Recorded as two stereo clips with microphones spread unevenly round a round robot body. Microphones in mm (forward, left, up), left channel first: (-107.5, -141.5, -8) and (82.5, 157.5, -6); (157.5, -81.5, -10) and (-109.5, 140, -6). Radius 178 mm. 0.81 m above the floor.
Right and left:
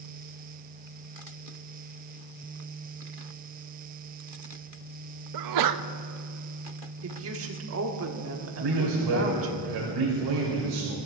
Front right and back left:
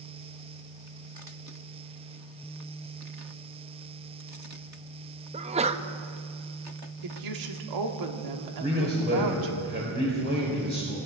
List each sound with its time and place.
5.3 s a sneeze: 70° left, 0.6 m
7.0 s a woman speaking: 110° left, 1.5 m
8.6 s a man speaking: 80° left, 3.5 m